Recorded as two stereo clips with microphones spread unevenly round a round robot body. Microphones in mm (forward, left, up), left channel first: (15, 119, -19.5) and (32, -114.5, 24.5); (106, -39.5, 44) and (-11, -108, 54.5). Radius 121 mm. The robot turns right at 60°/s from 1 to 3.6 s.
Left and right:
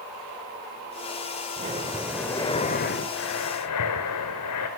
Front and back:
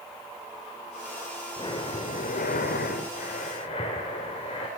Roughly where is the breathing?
Ahead right.